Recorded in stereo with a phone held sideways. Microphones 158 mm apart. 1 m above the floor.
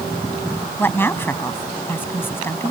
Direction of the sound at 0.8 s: 15° left (ahead or behind).